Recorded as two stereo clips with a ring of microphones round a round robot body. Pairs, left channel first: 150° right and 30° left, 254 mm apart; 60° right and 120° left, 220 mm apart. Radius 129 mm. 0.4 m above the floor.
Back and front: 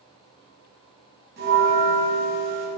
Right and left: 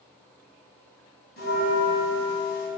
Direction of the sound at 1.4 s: 20° right.